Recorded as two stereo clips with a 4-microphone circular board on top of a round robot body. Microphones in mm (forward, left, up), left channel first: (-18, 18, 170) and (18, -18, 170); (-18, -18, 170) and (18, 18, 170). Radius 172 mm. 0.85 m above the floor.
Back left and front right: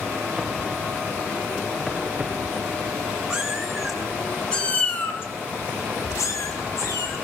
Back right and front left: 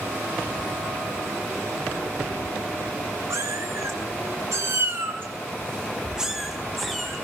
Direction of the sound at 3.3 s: 35° left.